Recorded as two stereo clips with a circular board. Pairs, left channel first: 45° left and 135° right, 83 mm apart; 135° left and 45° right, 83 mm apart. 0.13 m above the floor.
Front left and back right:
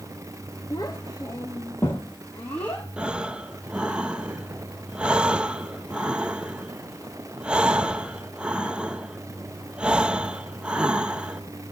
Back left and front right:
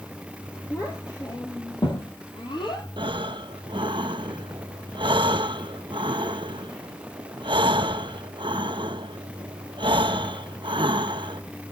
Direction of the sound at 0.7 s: 85° left.